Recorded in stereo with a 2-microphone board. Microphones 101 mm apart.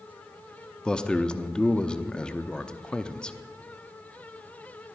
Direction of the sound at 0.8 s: 10° left (ahead or behind).